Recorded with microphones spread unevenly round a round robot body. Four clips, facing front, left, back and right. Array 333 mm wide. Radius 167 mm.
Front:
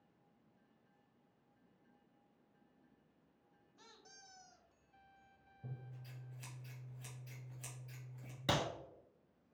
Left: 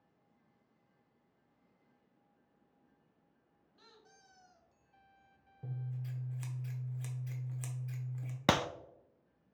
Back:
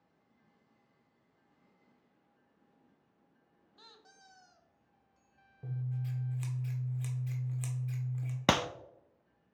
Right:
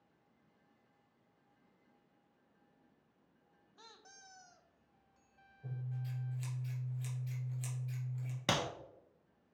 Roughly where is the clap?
Behind left.